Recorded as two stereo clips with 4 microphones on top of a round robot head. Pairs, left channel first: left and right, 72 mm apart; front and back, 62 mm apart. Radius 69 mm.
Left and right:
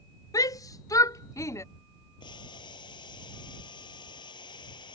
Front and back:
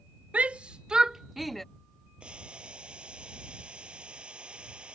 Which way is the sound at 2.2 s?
105° left.